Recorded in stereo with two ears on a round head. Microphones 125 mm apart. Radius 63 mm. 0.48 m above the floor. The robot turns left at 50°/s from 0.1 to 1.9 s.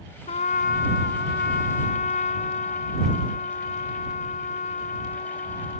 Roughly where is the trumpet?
Behind left.